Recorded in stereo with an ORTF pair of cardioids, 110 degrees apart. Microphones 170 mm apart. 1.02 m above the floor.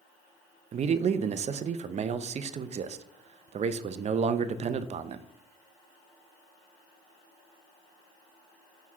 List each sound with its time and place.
0.7 s a man speaking: 40° right, 0.6 m